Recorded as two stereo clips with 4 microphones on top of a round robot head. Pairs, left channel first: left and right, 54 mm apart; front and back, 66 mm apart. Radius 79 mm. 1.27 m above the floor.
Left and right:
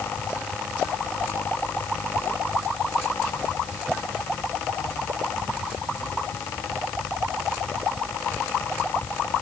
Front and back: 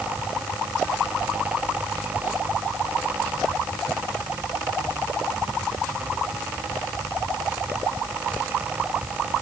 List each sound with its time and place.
Only background noise.